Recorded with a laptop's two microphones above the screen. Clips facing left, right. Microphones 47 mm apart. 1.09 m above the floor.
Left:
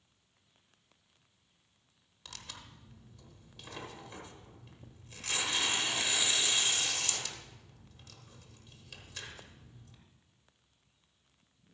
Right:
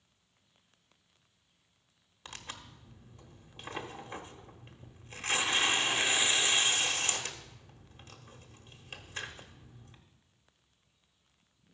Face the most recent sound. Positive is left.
turn(degrees=-35)  # may be behind; listen again after turning